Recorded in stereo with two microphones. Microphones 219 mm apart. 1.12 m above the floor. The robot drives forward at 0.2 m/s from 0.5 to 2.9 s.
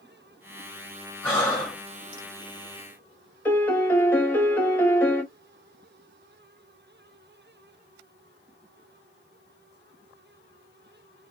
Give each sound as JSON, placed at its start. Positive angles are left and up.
{"t": 1.2, "sound": "breathing", "side_deg": 5, "distance_m": 1.5}
{"t": 3.5, "sound": "a piano", "side_deg": 10, "distance_m": 0.5}